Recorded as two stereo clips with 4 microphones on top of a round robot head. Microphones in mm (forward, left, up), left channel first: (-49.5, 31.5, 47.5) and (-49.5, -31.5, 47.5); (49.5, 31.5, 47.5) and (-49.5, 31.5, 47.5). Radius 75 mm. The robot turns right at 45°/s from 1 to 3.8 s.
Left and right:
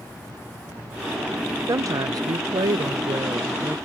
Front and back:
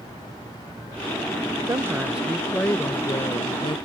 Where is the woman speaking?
120° right; by 3.8 s 25° right.